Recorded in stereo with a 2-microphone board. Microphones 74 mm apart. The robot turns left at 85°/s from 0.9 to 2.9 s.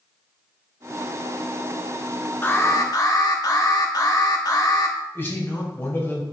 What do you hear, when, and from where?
2.4 s an alarm: 145° left, 1.2 m; by 5.0 s 105° left, 1.2 m
5.2 s a man speaking: 30° left (ahead or behind), 2.5 m